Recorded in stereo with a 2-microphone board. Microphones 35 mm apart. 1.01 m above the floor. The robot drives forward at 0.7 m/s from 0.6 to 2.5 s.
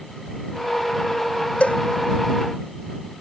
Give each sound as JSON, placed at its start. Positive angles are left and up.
{"t": 1.6, "sound": "a cowbell", "side_deg": 40}